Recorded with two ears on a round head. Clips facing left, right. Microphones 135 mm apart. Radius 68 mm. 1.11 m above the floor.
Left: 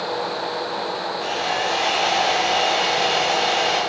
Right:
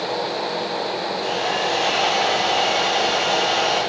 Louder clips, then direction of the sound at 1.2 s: Right 1 dB; 10° left (ahead or behind).